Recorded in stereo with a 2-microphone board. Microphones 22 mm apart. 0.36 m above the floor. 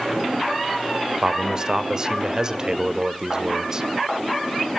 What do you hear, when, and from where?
1.2 s a man speaking: 30° right (ahead or behind), 1.4 m